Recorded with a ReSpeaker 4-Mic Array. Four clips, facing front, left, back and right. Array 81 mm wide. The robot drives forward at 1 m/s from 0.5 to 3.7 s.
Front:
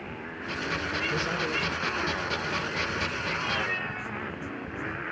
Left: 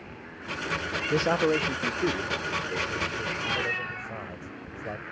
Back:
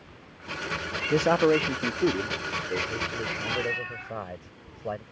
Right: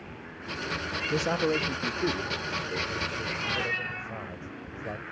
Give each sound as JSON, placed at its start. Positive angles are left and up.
{"t": 0.0, "sound": "a motorcycle", "azimuth_deg": 5}
{"t": 1.1, "sound": "a man speaking", "azimuth_deg": 155}